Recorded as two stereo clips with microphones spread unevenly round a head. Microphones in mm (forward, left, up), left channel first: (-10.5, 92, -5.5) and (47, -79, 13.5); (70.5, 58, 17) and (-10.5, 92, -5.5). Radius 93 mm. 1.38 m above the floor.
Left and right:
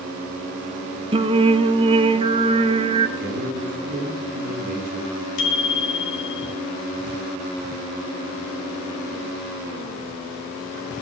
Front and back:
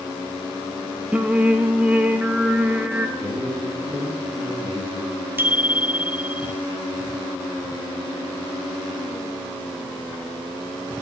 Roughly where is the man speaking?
Behind right.